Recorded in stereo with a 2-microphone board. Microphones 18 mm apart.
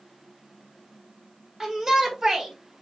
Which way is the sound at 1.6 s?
25° right (ahead or behind).